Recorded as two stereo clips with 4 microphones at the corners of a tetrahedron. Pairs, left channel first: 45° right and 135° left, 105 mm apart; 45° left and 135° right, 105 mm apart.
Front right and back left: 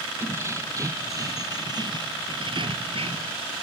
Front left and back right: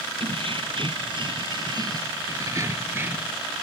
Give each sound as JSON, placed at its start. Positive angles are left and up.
{"t": 0.2, "sound": "keys jangling", "azimuth_deg": -160}